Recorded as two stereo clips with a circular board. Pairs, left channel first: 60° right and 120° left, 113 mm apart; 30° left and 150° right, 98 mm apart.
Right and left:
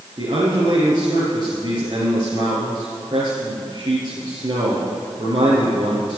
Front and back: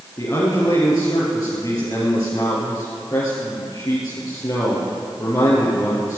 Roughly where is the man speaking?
Left.